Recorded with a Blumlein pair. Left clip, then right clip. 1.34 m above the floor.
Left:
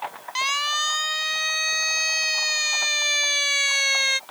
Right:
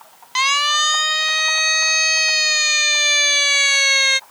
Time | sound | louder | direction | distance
0.3 | a siren | right 7 dB | 20° right | ?